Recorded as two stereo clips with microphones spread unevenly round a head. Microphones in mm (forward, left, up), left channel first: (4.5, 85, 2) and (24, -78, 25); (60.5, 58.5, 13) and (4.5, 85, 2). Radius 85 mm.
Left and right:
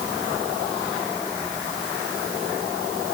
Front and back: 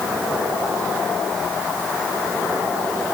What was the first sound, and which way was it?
Only background noise.